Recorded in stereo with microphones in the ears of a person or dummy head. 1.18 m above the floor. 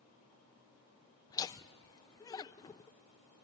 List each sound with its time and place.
1.3 s laughter: 20° left (ahead or behind), 0.5 m